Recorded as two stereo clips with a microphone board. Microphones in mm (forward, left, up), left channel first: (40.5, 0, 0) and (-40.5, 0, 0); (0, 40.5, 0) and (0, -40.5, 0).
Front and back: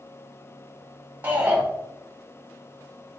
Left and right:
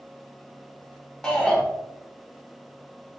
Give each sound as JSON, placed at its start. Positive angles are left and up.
{"t": 1.2, "sound": "a shout", "azimuth_deg": 160, "distance_m": 0.6}